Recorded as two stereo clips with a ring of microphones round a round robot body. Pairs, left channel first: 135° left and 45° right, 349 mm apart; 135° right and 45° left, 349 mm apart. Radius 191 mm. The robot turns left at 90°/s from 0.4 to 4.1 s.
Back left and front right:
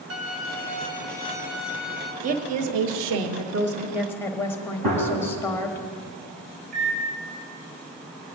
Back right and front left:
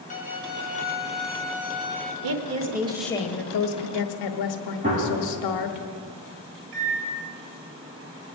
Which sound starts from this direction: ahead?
A gunshot, at 4.8 s.